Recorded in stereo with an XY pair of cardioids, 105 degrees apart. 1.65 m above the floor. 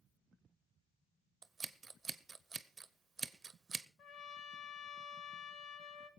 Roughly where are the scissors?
Ahead right.